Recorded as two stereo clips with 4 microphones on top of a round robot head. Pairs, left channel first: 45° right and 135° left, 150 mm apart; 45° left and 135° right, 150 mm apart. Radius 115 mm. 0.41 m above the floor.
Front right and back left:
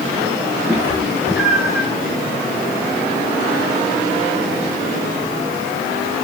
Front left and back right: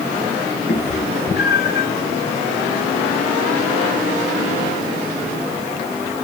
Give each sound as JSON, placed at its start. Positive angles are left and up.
{"t": 0.7, "sound": "a cat meowing", "azimuth_deg": 60, "distance_m": 4.5}